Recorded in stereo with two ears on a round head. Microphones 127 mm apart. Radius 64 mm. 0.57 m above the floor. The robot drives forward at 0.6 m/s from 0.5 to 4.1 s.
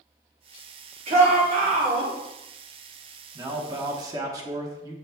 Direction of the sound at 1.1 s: 45° right (ahead or behind).